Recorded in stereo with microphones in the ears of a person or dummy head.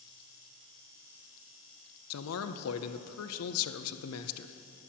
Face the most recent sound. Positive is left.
turn(degrees=90)